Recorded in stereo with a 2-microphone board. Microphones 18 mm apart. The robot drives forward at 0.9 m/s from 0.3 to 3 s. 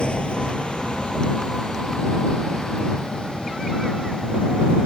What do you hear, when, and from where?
0.0 s a vehicle: 80° left; by 4.9 s 70° left (ahead or behind)